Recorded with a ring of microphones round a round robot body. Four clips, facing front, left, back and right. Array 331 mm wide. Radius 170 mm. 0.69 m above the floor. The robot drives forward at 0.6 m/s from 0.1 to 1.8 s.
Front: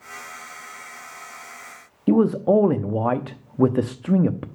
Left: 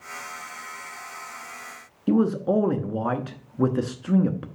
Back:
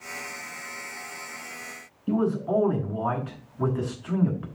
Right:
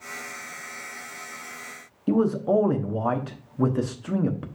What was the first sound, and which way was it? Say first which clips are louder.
A man speaking: even, front 7 dB; 5° left.